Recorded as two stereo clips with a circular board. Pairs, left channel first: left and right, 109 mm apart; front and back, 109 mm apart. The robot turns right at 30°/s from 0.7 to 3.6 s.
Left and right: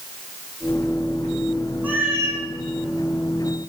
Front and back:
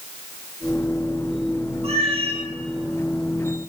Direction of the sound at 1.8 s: 165° right.